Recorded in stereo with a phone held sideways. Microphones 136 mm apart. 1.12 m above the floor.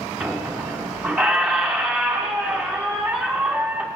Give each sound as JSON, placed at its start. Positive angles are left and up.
{"t": 0.2, "sound": "a squeak", "side_deg": -5, "distance_m": 1.2}